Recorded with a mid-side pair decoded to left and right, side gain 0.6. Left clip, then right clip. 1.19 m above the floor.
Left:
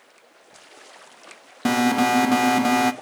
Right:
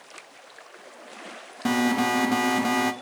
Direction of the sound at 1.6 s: 30° left.